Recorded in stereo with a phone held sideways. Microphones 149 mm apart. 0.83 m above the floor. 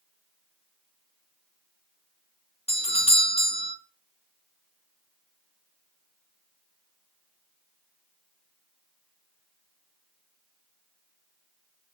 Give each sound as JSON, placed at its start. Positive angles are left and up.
{"t": 2.7, "sound": "a doorbell", "side_deg": 40, "distance_m": 1.2}